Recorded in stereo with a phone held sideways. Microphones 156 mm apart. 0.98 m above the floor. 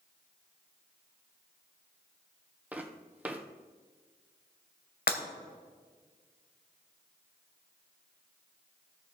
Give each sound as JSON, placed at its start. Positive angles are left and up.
{"t": 2.7, "sound": "footsteps", "side_deg": -10, "distance_m": 1.3}
{"t": 5.1, "sound": "breaking glass", "side_deg": 70, "distance_m": 1.4}